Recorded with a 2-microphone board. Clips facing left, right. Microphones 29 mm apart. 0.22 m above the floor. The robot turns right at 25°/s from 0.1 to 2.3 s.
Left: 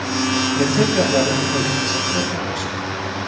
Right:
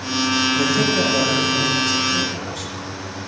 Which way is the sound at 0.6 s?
5° left.